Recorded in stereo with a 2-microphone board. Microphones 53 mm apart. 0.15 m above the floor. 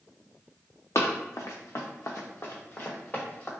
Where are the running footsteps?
80° left, 0.7 m; by 3.5 s 25° left (ahead or behind), 1.5 m.